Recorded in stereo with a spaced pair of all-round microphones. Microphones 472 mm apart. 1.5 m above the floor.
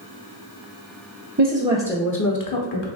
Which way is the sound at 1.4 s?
30° right (ahead or behind).